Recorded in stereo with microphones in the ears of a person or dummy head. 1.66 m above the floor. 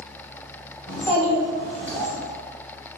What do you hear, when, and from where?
0.9 s a child speaking: 15° left (ahead or behind), 1.3 m